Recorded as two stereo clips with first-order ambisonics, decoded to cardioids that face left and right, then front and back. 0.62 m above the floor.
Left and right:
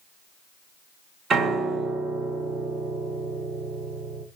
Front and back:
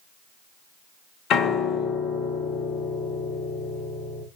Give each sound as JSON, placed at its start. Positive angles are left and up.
{"t": 1.3, "sound": "a piano", "azimuth_deg": -35, "distance_m": 0.9}